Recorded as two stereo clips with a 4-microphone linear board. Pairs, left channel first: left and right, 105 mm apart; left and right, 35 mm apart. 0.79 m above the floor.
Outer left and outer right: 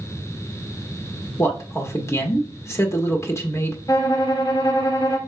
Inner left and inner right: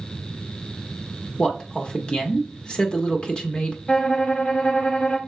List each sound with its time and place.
1.4 s a man speaking: 30° left (ahead or behind), 0.7 m
3.9 s a violin: 40° left (ahead or behind), 0.9 m